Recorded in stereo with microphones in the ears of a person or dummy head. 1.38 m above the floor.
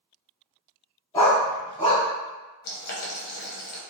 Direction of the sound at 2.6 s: 60° left (ahead or behind).